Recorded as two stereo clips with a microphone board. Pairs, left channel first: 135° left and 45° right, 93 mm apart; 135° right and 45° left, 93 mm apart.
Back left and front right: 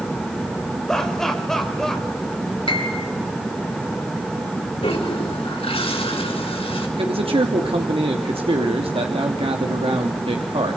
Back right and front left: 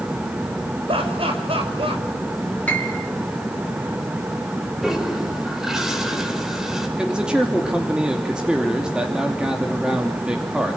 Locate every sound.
0.9 s laughter: 50° left, 5.5 m
2.7 s a piano: 150° left, 6 m
4.8 s a toilet flushing: 130° left, 5 m
7.0 s a man speaking: 35° right, 3 m